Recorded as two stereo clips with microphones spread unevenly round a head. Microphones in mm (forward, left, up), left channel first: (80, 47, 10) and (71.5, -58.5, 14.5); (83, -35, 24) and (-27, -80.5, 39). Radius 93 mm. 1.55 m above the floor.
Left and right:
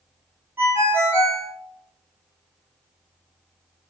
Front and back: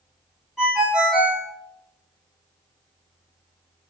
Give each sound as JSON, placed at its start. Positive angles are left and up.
{"t": 0.6, "sound": "a ringtone", "azimuth_deg": -95, "distance_m": 0.7}